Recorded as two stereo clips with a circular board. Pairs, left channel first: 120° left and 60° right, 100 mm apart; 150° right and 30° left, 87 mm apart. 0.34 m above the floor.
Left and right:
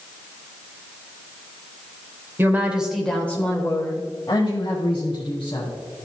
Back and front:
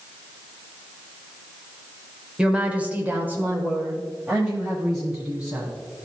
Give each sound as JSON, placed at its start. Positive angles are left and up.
{"t": 2.4, "sound": "a woman speaking", "azimuth_deg": -35, "distance_m": 0.9}